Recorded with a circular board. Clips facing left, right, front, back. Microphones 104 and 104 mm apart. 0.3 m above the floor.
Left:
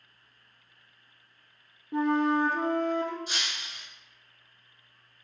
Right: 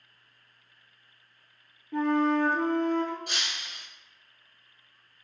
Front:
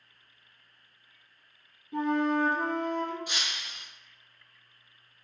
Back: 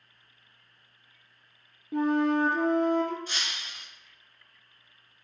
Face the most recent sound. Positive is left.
turn(degrees=-75)